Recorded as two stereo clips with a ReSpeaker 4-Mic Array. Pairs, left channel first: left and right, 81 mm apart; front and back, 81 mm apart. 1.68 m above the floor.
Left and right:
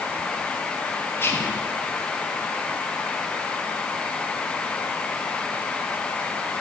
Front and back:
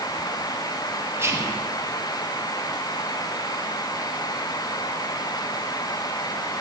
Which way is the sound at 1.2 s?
140° left.